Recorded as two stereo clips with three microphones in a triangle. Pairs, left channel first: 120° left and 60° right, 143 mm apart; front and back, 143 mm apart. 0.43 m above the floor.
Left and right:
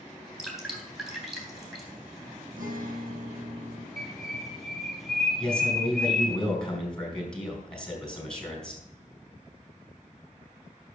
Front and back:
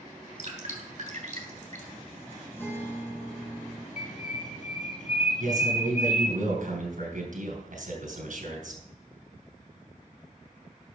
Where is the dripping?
150° right, 3.5 m.